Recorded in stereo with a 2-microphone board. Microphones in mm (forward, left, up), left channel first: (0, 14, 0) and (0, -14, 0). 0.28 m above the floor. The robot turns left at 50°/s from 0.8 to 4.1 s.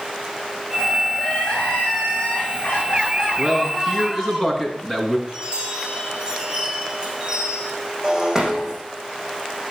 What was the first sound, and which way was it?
Crying, 140° left.